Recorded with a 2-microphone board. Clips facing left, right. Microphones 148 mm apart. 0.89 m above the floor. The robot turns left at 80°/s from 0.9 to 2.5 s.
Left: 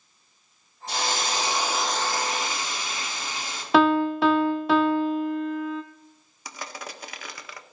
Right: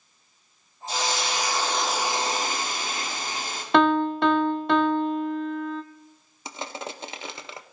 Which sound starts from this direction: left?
A hiss, at 0.9 s.